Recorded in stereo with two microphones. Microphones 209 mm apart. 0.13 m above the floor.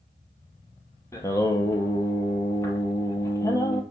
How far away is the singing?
About 0.5 m.